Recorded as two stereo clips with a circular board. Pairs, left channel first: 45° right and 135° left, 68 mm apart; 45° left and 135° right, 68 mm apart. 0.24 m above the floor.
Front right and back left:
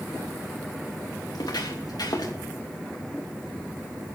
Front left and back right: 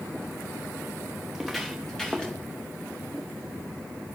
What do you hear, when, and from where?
1.2 s footsteps: 50° right, 2.5 m; by 2.3 s 35° right, 3.5 m